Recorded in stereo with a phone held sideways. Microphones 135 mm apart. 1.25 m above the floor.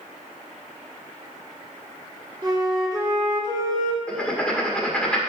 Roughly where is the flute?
Right.